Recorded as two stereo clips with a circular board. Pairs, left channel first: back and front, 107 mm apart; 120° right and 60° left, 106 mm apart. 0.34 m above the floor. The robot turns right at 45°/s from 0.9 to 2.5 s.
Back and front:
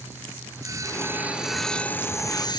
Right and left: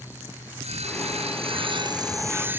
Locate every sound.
0.6 s sawing: 60° left; by 2.6 s 130° left